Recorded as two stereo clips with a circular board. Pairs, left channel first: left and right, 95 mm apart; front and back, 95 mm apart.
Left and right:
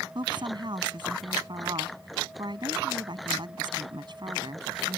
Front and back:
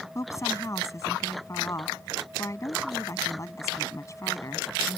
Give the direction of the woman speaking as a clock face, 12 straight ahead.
2 o'clock.